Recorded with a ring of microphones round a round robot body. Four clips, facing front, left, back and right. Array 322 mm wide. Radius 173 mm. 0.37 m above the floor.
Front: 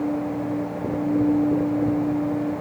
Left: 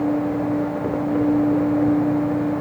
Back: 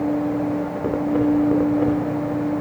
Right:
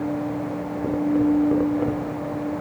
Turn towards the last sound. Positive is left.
No sound to turn to.